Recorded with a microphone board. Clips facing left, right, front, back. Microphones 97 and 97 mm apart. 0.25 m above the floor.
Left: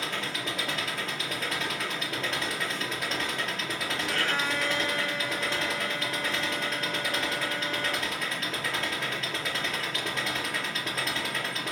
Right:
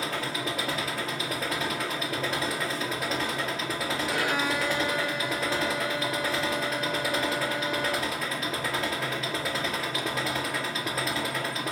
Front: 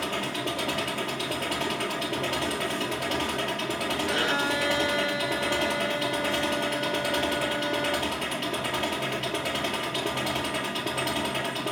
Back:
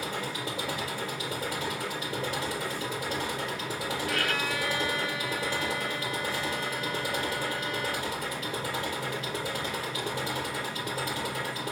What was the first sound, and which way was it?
An engine running, 5° right.